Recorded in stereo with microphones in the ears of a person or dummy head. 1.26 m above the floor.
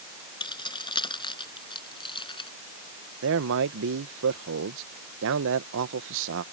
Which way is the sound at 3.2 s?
70° right (ahead or behind).